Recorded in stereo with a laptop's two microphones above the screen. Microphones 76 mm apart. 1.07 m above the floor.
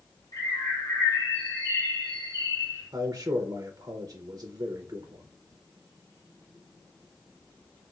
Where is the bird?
75° left (ahead or behind), 1.7 m.